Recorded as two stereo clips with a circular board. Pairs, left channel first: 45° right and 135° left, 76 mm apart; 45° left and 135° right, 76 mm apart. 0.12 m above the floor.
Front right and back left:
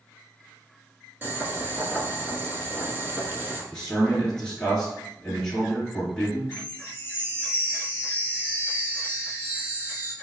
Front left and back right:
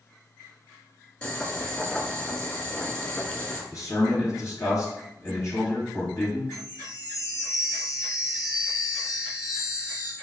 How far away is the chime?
About 1.2 m.